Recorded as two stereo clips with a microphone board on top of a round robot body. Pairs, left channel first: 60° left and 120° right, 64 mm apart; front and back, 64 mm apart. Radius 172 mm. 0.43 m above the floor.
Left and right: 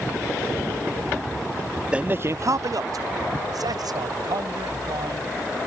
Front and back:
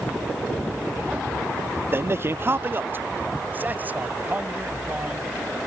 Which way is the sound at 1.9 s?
175° left.